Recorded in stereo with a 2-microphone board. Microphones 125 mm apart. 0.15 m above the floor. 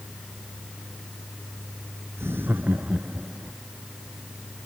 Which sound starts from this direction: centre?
Laughter, at 2.2 s.